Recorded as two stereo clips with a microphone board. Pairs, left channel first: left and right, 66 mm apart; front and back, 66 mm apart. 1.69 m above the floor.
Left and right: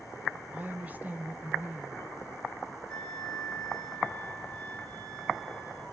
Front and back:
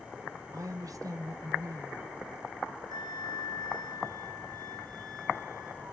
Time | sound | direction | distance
0.5 | a woman speaking | 155° right | 1.2 m
2.9 | a flute | 165° left | 5 m